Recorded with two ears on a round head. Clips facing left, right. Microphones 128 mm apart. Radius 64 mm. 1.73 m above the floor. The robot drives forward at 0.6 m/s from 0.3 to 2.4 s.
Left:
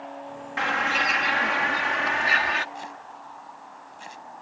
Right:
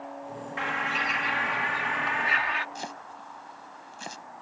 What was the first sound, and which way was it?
A bird, 65° left (ahead or behind).